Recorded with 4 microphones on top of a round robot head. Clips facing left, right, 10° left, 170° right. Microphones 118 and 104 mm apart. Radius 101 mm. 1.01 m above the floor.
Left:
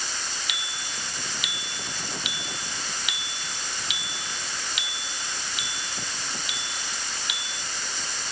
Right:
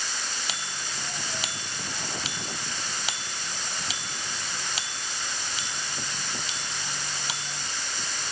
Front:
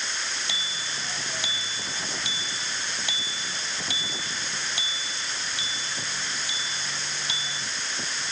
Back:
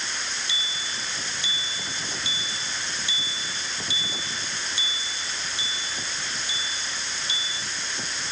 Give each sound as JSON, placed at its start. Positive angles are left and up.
{"t": 0.5, "sound": "a bicycle bell", "azimuth_deg": -35}